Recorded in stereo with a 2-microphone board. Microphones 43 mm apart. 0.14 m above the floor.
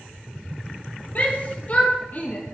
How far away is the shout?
About 4 m.